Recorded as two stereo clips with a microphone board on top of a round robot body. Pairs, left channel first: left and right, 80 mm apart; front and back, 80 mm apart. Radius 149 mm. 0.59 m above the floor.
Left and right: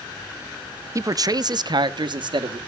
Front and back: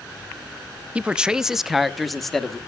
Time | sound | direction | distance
0.9 | a man speaking | 115° right | 0.7 m